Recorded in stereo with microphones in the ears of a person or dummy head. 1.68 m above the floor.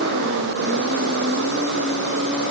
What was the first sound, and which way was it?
Only background noise.